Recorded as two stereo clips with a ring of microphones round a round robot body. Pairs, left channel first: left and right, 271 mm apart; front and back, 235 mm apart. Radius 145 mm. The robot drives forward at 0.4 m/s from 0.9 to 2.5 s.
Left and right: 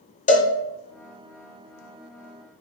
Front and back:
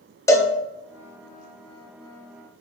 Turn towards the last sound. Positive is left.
turn(degrees=145)